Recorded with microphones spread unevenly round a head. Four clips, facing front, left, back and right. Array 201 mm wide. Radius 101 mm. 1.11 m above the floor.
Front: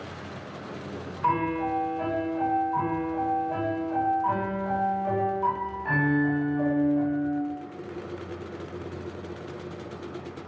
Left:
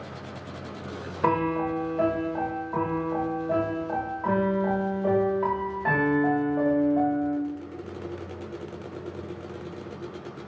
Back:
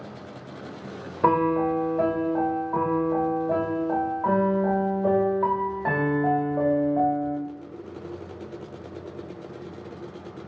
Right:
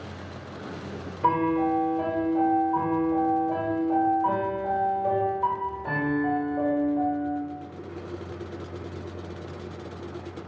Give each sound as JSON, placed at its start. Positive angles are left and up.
{"t": 1.2, "sound": "a piano", "azimuth_deg": 165, "distance_m": 3.0}